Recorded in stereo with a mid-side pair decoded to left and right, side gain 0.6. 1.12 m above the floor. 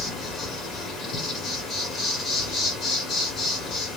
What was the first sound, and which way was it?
An insect, 50° left.